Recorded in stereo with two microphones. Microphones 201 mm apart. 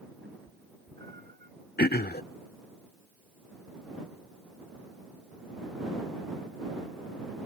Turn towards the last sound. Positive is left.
turn(degrees=55)  # may be behind; listen again after turning